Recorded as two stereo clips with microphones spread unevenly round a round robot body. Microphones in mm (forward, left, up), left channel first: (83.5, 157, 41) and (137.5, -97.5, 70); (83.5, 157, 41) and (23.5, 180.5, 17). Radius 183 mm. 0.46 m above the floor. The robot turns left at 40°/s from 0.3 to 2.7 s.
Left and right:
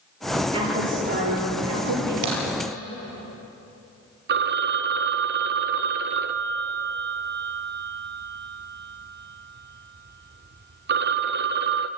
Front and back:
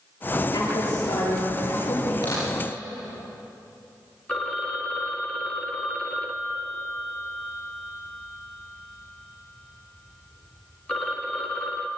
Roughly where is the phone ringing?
Behind right.